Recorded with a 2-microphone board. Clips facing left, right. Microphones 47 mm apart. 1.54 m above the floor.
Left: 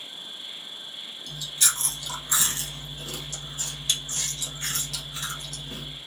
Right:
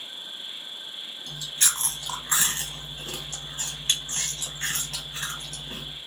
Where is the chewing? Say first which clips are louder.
Even; 35° right (ahead or behind), 1.6 m.